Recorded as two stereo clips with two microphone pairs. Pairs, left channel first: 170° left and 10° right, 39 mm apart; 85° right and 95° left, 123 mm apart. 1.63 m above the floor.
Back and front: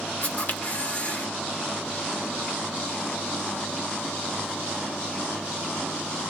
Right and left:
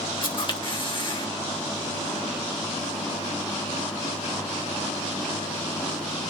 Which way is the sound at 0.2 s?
135° right.